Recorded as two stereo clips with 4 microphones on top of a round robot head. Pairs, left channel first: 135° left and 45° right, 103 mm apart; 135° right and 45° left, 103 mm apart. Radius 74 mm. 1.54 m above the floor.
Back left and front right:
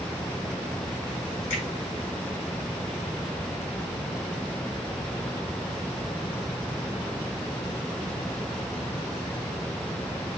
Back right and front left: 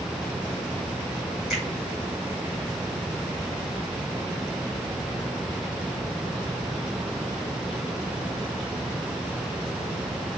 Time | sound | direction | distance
1.5 | a finger snap | 130° left | 6.5 m